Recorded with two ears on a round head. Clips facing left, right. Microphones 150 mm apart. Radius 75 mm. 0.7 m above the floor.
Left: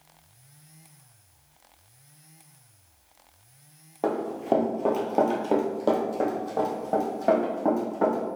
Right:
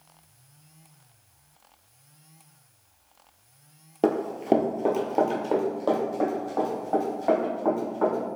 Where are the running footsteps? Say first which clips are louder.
Right 3 dB; 35° right (ahead or behind), 0.8 m; by 8.3 s 35° left (ahead or behind), 2 m.